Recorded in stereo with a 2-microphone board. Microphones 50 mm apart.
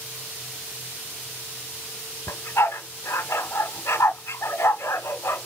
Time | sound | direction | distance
2.3 | a dog barking | 65° left (ahead or behind) | 0.9 m